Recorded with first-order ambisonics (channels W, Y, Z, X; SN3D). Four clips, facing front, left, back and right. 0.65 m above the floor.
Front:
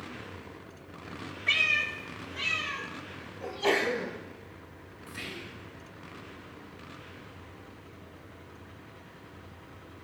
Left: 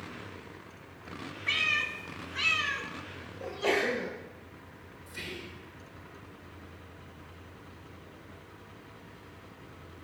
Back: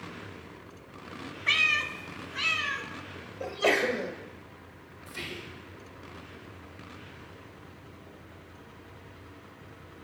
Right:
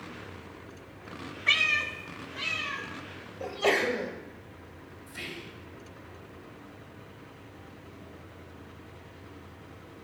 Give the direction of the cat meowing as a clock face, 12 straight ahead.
5 o'clock.